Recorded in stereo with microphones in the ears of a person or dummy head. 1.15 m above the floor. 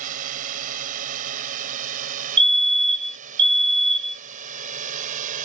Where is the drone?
40° right (ahead or behind).